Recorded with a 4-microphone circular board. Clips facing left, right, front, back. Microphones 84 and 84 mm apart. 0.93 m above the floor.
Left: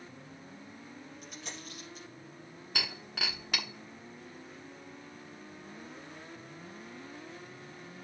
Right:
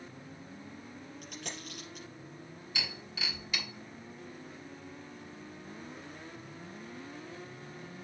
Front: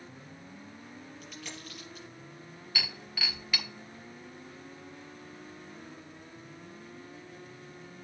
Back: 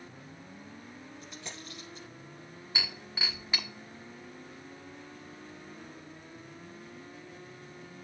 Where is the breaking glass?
115° left, 1.3 m.